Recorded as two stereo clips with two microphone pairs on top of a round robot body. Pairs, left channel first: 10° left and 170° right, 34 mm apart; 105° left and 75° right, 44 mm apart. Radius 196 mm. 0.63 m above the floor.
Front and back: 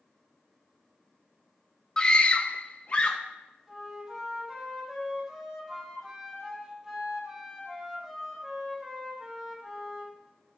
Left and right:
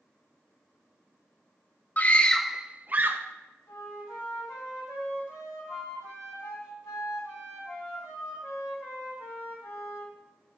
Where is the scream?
75° left, 0.8 m; by 3.2 s 45° right, 0.9 m.